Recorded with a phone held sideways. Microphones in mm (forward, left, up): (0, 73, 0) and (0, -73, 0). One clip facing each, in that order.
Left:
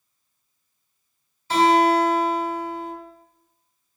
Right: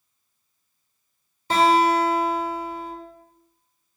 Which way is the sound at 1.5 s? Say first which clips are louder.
Left 1 dB; 65° right (ahead or behind).